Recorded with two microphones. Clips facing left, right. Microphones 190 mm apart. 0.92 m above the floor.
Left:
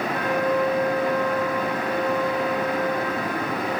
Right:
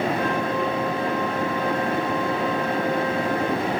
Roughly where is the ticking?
No ticking in this recording.